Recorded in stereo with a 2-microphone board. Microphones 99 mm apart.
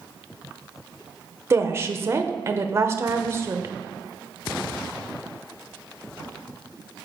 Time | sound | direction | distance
1.5 | a woman speaking | 30° right (ahead or behind) | 0.6 m